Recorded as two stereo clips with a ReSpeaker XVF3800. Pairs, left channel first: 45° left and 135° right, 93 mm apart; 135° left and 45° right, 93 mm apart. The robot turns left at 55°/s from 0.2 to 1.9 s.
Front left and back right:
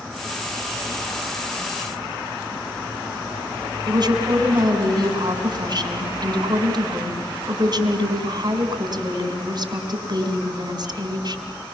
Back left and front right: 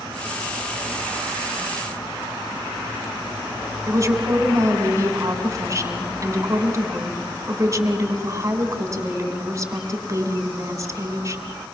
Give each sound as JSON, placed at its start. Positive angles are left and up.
{"t": 3.9, "sound": "a woman speaking", "azimuth_deg": -100, "distance_m": 3.5}